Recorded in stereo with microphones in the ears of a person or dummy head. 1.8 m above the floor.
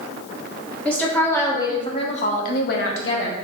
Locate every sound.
0.8 s a woman speaking: 10° left (ahead or behind), 1.5 m; by 3.4 s 75° left (ahead or behind), 0.9 m